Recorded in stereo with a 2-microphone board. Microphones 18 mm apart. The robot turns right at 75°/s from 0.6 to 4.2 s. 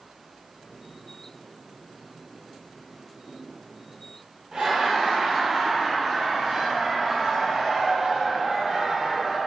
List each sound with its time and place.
4.5 s laughter: 55° right (ahead or behind), 0.8 m